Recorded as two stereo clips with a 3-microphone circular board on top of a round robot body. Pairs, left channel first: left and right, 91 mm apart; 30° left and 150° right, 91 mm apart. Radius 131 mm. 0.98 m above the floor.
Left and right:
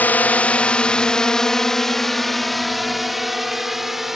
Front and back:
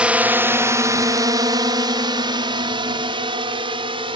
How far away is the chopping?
No chopping in this recording.